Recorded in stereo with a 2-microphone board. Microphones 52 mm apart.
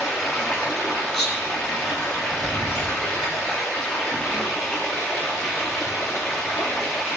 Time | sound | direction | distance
0.0 | running water | 10° left (ahead or behind) | 1.9 m
1.1 | whispering | 5° left (ahead or behind) | 3 m